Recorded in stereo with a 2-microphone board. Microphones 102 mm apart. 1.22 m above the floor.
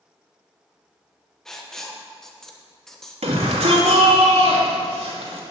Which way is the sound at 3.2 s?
80° right.